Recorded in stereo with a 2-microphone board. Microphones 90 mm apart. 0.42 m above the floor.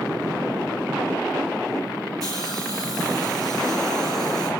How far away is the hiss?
About 4 m.